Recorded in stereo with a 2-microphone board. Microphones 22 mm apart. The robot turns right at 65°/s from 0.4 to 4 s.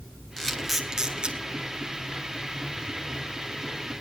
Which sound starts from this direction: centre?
A camera shutter, at 0.4 s.